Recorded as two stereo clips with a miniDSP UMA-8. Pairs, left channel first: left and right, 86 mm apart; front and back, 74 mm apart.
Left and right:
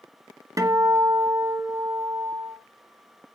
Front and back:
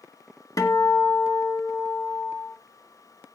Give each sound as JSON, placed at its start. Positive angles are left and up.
{"t": 0.6, "sound": "a guitar", "azimuth_deg": -40, "distance_m": 1.7}